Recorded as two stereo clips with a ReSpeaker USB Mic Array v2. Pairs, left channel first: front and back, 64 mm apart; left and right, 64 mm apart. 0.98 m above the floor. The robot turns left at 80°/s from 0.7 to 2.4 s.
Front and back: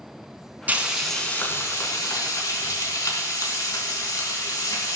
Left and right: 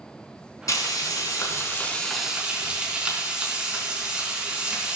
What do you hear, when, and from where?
0.7 s frying: 115° left, 4 m; by 5.0 s 20° right, 4 m